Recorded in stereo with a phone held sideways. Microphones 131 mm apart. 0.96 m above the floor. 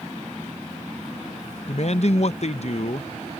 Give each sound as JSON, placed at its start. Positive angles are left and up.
{"t": 1.7, "sound": "a man speaking", "side_deg": 55}